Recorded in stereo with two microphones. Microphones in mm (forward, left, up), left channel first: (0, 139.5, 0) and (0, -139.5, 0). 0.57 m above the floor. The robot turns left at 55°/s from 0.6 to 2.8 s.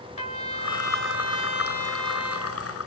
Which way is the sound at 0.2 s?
25° left.